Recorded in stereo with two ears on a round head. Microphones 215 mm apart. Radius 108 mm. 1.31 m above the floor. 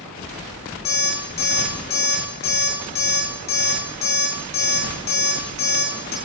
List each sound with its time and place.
0.8 s an alarm clock: 85° left, 8 m